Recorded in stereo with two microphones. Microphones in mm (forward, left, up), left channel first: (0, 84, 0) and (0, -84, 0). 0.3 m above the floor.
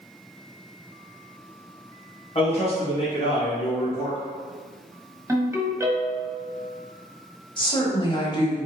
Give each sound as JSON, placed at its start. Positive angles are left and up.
{"t": 2.4, "sound": "a man speaking", "side_deg": 40, "distance_m": 1.1}
{"t": 5.3, "sound": "a ringtone", "side_deg": -15, "distance_m": 1.0}
{"t": 7.6, "sound": "a woman speaking", "side_deg": 30, "distance_m": 1.2}